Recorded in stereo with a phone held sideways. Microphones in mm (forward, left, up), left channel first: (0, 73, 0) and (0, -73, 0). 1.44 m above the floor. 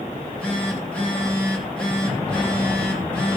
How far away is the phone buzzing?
About 2.5 m.